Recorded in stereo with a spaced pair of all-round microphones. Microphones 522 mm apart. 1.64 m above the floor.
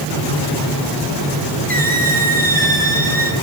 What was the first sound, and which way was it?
A squeak, 15° right (ahead or behind).